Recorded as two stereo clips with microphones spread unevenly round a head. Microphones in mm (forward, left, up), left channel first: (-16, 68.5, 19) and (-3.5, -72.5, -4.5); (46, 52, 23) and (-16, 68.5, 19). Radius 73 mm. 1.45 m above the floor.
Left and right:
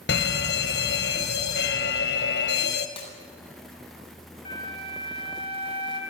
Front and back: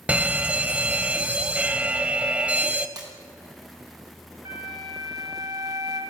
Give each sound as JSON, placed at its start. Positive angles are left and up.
{"t": 0.1, "sound": "a fire alarm", "azimuth_deg": 100, "distance_m": 2.5}
{"t": 3.0, "sound": "breaking glass", "azimuth_deg": 150, "distance_m": 7.5}
{"t": 4.5, "sound": "a flute", "azimuth_deg": 150, "distance_m": 6.5}